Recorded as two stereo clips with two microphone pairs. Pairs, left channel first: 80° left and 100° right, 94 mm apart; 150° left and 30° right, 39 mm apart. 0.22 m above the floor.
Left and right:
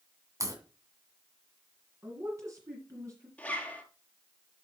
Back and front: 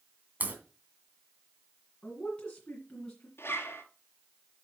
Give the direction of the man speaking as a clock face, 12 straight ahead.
5 o'clock.